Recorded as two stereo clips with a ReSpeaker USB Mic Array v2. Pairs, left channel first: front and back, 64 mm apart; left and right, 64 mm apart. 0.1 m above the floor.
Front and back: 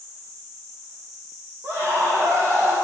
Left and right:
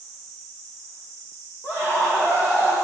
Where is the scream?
135° left, 4.5 m.